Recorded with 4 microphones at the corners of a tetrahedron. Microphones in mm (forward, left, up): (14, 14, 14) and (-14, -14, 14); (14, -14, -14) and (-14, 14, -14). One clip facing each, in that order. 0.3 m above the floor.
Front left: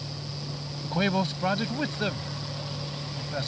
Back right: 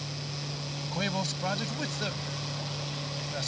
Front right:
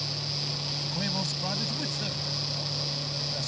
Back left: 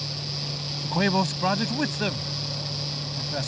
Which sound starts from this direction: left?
A man speaking, at 0.8 s.